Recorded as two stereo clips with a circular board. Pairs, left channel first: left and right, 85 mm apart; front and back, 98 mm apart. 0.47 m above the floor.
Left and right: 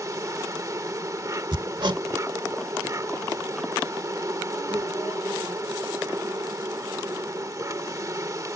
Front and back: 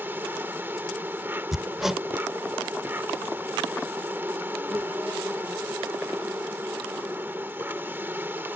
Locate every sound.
0.0 s an insect: 120° right
1.5 s hammering: 95° right